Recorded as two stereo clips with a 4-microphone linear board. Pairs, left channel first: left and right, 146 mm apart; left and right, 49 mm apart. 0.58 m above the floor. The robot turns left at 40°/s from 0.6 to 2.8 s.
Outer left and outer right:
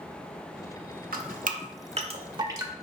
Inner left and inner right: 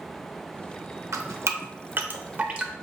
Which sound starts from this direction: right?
Dripping, at 1.1 s.